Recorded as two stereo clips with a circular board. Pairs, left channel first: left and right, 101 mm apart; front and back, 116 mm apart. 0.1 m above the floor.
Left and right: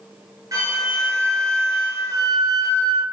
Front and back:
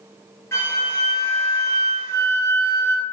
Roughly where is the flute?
Ahead right.